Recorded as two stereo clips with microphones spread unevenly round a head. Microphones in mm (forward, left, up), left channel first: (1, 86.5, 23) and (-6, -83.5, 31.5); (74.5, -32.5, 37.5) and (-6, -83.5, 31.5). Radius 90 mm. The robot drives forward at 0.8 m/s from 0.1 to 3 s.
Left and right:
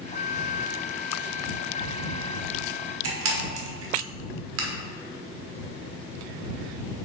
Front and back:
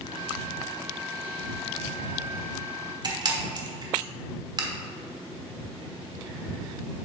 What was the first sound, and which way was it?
A camera shutter, 105° right.